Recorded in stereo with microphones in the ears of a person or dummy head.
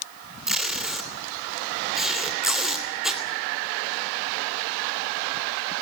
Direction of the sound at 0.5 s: Centre (ahead or behind).